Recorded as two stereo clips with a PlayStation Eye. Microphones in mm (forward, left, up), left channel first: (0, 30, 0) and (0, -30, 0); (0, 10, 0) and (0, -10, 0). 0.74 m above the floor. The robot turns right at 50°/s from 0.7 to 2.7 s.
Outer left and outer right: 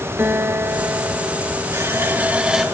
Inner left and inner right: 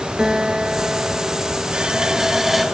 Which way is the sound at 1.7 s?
55° right.